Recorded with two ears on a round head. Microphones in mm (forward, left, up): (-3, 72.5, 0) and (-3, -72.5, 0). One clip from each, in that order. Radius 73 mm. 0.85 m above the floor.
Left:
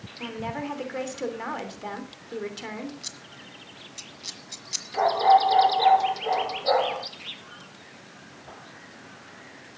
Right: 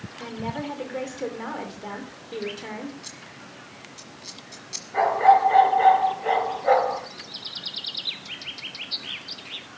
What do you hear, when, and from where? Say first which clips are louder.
0.2 s a woman speaking: even; 25° left (ahead or behind), 3 m
3.0 s scissors: left 1 dB; 30° left (ahead or behind), 1.4 m
4.9 s a dog barking: right 2 dB; 55° right (ahead or behind), 5 m